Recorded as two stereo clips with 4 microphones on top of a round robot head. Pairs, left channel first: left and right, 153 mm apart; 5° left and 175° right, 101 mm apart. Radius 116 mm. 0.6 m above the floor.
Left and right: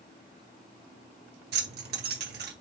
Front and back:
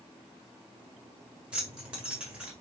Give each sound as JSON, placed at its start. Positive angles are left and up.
{"t": 1.5, "sound": "keys jangling", "azimuth_deg": -95, "distance_m": 1.7}